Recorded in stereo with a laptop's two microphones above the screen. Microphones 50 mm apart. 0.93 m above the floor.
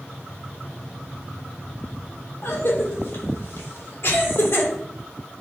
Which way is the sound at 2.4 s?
45° left (ahead or behind).